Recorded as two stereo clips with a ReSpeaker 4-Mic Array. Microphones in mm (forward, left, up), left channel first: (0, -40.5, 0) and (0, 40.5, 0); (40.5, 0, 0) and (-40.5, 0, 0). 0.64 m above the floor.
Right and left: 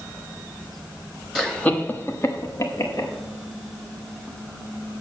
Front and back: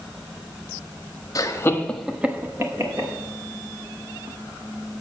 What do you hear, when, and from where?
1.4 s laughter: 10° right, 1.2 m; by 3.1 s 140° right, 1.9 m